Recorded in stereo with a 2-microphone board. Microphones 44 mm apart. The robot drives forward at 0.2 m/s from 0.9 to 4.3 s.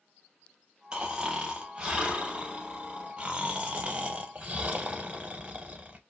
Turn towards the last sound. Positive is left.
turn(degrees=-30)  # may be behind; listen again after turning